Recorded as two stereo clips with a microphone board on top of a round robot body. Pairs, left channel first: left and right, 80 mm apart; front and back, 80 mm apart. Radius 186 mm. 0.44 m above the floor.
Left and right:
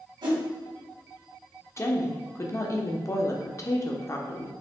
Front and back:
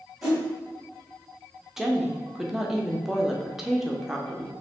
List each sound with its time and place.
0.2 s a whoosh: 95° right, 1.7 m
1.8 s a woman speaking: 100° left, 0.9 m